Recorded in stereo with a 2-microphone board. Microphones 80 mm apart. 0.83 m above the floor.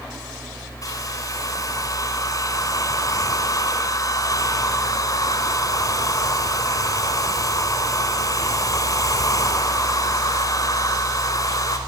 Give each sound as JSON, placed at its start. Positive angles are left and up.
{"t": 0.8, "sound": "a hair dryer", "side_deg": 45, "distance_m": 4.0}